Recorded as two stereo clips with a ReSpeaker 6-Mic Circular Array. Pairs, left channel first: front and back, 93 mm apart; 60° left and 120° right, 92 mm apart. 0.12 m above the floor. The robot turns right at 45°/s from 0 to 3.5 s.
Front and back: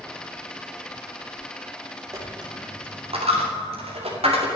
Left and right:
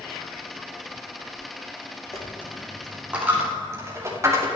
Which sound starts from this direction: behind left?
A dropped coin, at 2.1 s.